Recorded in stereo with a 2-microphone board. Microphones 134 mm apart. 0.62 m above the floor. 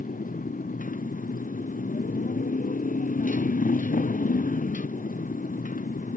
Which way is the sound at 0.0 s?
90° left.